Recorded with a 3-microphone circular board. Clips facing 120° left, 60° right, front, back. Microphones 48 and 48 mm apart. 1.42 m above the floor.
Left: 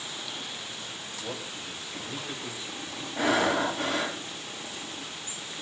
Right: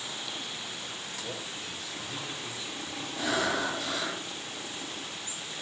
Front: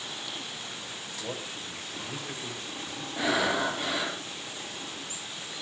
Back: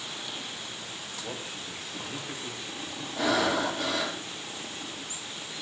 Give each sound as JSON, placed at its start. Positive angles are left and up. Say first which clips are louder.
{"t": 1.2, "sound": "a man speaking", "louder": "left 3 dB, front 2 dB", "azimuth_deg": 40, "distance_m": 7.0}
{"t": 3.2, "sound": "breathing", "louder": "left 5 dB, back 1 dB", "azimuth_deg": 70, "distance_m": 5.5}